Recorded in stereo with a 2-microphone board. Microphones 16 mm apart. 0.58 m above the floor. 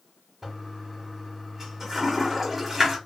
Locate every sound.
0.4 s a toilet flushing: 20° right (ahead or behind), 1.5 m